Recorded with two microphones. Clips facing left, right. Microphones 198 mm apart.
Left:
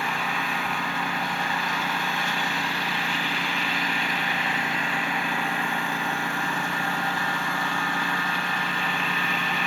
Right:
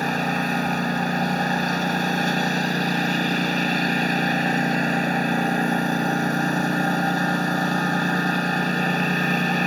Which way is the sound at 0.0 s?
40° right (ahead or behind).